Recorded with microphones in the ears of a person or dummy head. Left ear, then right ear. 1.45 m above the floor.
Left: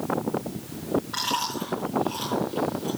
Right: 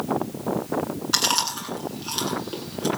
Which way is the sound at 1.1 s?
75° right (ahead or behind).